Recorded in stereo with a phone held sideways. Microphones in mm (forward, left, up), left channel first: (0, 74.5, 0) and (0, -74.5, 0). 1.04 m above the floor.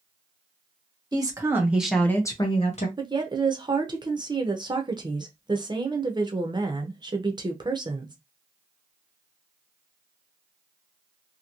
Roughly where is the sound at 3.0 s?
Right.